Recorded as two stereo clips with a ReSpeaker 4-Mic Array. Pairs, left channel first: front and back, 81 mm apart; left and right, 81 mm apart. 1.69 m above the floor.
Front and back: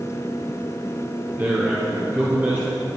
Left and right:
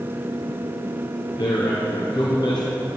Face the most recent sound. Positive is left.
turn(degrees=115)